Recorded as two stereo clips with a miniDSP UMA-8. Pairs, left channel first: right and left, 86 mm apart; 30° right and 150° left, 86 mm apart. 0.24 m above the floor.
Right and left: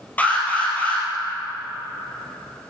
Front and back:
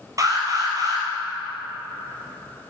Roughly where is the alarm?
Behind.